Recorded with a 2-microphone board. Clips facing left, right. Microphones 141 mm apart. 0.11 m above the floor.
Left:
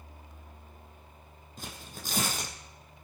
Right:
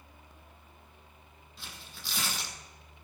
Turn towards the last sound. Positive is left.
turn(degrees=45)  # may be behind; listen again after turning